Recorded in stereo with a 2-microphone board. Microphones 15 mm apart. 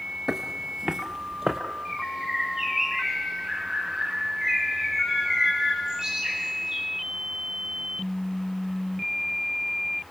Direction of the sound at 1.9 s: 40° right (ahead or behind).